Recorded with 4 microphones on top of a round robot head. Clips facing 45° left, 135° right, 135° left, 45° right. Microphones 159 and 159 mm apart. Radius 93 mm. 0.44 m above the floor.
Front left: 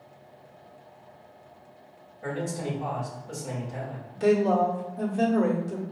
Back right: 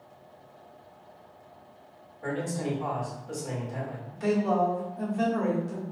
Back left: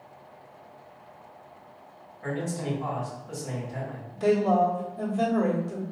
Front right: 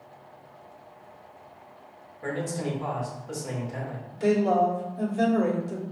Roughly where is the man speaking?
Ahead right.